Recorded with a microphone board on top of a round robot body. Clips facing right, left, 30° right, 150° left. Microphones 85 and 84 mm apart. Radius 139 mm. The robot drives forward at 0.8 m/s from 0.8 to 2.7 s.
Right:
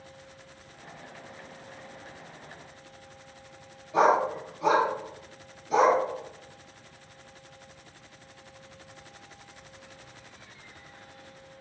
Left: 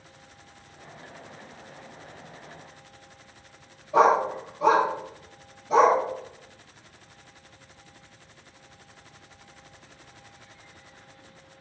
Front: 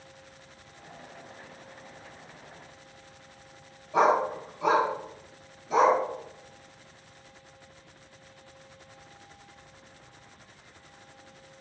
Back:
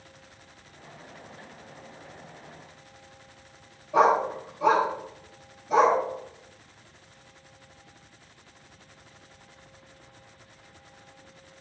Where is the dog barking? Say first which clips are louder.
Left 3 dB, back 2 dB; 125° left, 3 m.